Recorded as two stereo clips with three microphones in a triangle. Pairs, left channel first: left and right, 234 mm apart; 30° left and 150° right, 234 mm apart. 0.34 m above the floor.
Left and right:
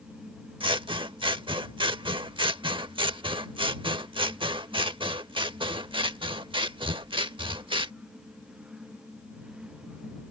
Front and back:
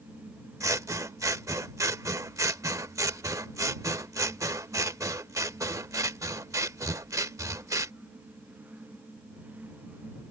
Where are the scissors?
100° right.